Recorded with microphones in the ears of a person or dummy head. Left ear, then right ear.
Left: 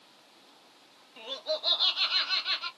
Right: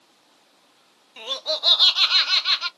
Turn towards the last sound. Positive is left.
turn(degrees=-40)  # may be behind; listen again after turning